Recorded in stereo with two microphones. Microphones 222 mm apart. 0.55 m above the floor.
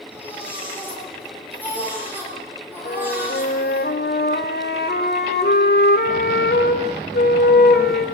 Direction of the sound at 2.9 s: 45° left (ahead or behind).